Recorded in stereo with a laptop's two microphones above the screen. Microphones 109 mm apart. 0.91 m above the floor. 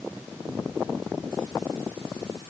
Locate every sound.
Only background noise.